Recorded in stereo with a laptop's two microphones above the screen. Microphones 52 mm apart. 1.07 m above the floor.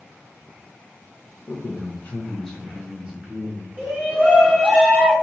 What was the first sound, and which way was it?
A man speaking, 50° left (ahead or behind).